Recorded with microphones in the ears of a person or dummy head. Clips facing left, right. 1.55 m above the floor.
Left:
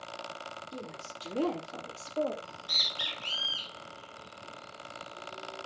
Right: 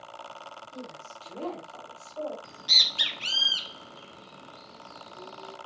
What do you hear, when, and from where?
0.7 s a woman speaking: 75° left (ahead or behind), 3 m; by 2.3 s 45° left (ahead or behind), 2.5 m
2.4 s a bird: 85° right, 2 m